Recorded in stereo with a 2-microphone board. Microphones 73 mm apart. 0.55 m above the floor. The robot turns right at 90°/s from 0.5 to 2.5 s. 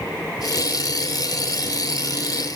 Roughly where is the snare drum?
I don't hear a snare drum.